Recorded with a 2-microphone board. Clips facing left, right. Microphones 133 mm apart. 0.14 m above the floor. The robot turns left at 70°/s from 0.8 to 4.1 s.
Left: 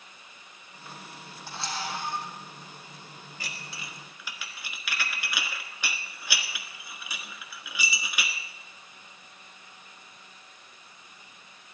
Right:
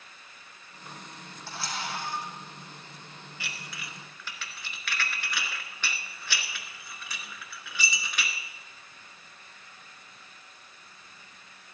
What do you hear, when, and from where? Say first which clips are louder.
1.5 s a camera shutter: left 1 dB; 165° left, 3.5 m; by 2.3 s 105° left, 3.5 m
3.4 s dishes clattering: even; 45° left (ahead or behind), 1.2 m; by 8.3 s 10° left (ahead or behind), 1.2 m